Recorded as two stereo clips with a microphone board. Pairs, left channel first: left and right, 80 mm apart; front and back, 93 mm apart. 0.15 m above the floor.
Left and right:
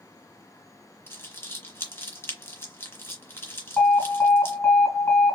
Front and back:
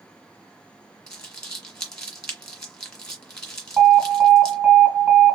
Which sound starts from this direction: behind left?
An alarm, at 3.8 s.